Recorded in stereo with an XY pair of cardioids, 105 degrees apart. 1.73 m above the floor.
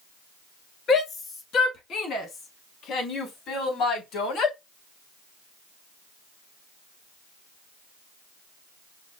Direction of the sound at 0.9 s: 55° left.